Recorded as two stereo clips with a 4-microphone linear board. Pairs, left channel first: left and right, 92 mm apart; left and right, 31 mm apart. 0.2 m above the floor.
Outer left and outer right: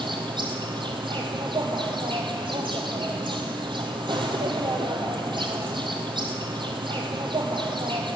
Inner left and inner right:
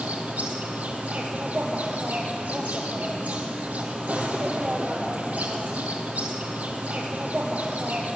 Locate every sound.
0.0 s an insect: 60° right (ahead or behind), 1.7 m